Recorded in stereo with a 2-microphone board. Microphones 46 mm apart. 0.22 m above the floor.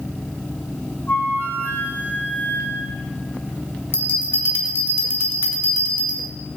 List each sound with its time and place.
1.1 s a flute: 55° left (ahead or behind), 6 m
3.9 s a bell: 55° left (ahead or behind), 2.5 m